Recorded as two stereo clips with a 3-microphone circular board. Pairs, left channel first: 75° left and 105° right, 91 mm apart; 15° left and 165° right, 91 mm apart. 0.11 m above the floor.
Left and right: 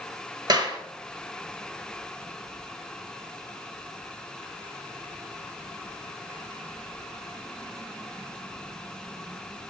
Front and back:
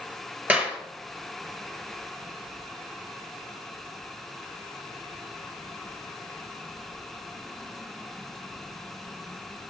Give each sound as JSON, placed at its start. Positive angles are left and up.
{"t": 0.5, "sound": "a clap", "azimuth_deg": -100, "distance_m": 1.3}